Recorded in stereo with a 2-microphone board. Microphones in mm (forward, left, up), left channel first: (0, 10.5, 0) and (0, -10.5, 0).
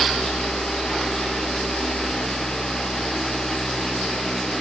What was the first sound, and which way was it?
Only background noise.